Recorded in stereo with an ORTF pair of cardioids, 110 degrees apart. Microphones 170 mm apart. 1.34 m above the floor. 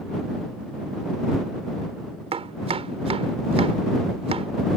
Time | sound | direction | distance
2.3 | chopping | 35° right | ?